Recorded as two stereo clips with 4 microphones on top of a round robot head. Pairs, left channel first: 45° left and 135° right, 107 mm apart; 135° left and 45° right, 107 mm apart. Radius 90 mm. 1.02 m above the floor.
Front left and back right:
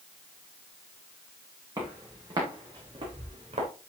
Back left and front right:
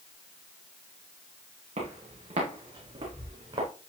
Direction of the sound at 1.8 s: 75° right.